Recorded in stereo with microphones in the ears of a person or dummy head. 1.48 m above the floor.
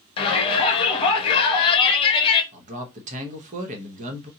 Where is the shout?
35° left (ahead or behind), 1.2 m.